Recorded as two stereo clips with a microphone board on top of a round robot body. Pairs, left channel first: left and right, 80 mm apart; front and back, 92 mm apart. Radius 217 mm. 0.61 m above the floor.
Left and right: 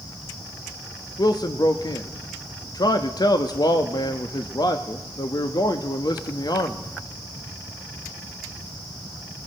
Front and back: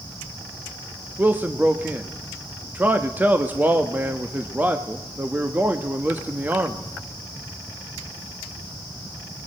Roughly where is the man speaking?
Left.